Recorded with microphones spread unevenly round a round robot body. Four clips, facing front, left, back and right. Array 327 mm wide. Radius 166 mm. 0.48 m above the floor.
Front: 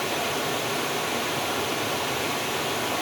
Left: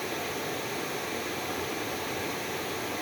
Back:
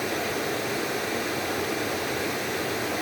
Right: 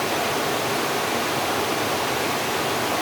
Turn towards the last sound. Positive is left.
turn(degrees=-110)